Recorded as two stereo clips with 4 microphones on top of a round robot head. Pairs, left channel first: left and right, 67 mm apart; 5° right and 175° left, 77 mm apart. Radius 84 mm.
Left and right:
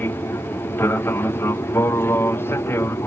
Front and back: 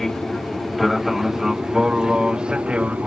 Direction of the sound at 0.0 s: 80° left.